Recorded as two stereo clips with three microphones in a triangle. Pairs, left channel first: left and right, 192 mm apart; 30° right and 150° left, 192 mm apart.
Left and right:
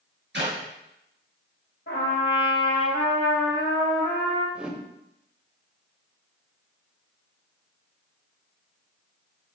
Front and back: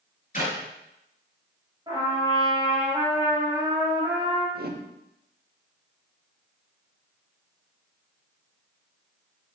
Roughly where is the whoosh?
Behind.